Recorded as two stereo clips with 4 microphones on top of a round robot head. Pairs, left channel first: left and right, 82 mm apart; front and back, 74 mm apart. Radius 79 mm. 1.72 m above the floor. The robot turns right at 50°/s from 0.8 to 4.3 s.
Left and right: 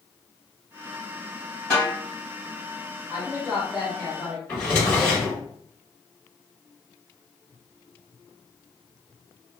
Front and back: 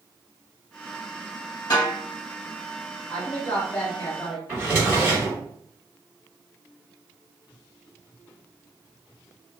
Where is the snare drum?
10° left, 1.5 m; by 1.9 s 20° left, 1.5 m.